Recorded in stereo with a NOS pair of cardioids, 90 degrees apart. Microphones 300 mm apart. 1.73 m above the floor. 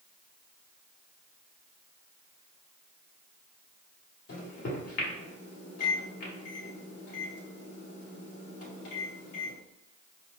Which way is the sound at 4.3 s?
55° left.